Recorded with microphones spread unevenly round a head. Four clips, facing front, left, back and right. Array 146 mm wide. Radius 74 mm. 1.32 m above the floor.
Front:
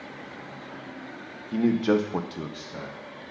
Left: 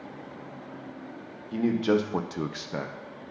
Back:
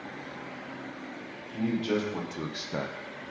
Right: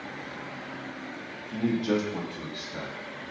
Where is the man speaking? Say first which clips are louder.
Left 2 dB, front 6 dB; 20° left, 1.5 m; by 3.0 s 145° left, 0.9 m.